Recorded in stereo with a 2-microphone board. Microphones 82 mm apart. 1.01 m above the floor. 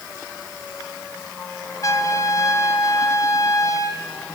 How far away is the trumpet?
About 1.4 m.